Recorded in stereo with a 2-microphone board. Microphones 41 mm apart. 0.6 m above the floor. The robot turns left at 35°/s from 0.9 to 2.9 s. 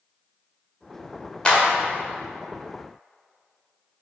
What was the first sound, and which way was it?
A clap, 20° left (ahead or behind).